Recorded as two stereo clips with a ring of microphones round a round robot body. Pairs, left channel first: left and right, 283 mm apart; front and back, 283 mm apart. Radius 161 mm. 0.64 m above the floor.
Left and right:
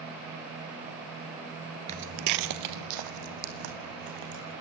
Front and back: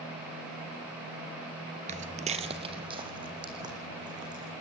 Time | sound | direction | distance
1.9 | footsteps | 140° right | 0.6 m